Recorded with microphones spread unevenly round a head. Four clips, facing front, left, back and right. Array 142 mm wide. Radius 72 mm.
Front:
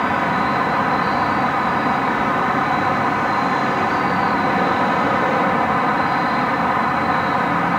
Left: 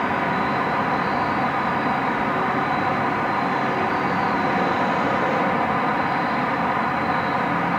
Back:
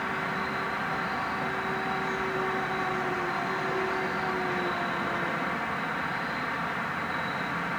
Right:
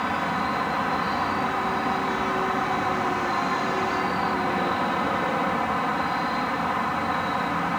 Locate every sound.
0.0 s an insect: 20° left